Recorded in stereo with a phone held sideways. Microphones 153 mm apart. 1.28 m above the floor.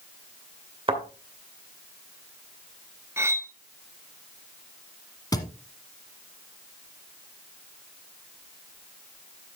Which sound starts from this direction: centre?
Cutlery clinking, at 3.2 s.